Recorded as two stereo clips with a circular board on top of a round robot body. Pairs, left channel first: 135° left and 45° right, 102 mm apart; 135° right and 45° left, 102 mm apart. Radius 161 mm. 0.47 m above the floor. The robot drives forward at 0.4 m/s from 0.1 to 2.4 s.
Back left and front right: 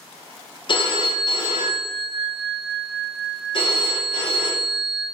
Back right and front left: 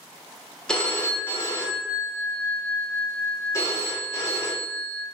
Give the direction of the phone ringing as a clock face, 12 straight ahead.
7 o'clock.